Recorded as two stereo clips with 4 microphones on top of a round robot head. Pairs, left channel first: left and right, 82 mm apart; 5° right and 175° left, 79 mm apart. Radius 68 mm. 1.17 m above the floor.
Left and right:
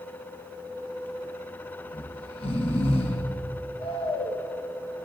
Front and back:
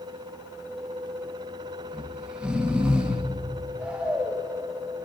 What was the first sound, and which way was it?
Snoring, 95° left.